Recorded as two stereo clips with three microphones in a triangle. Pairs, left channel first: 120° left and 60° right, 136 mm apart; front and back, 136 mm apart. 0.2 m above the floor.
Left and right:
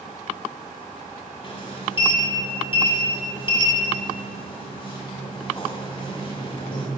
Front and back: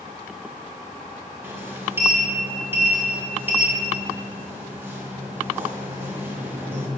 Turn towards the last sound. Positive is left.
turn(degrees=120)